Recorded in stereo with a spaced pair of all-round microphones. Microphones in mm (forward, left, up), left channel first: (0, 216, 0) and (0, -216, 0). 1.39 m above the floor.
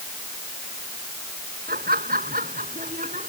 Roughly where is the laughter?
Right.